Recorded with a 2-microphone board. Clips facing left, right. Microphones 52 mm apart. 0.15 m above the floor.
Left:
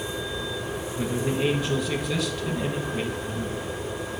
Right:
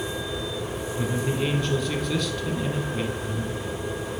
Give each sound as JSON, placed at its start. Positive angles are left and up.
{"t": 1.0, "sound": "a man speaking", "side_deg": 5, "distance_m": 1.0}